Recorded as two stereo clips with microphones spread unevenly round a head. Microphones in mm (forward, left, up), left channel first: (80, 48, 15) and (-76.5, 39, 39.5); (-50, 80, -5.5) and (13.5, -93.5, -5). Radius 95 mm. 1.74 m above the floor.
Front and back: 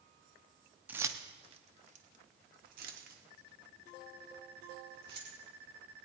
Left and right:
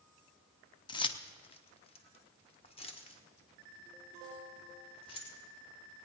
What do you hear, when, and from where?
0.9 s keys jangling: 140° left, 0.6 m; by 5.3 s 170° left, 2.5 m